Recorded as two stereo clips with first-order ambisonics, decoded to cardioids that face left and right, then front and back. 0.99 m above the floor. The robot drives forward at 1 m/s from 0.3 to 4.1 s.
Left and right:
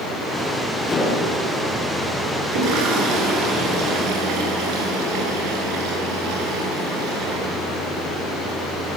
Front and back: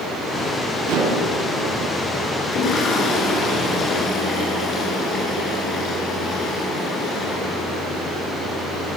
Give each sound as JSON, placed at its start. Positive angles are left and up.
{"t": 0.9, "sound": "dishes clattering", "azimuth_deg": 165, "distance_m": 7.5}
{"t": 2.4, "sound": "a toilet flushing", "azimuth_deg": -65, "distance_m": 9.5}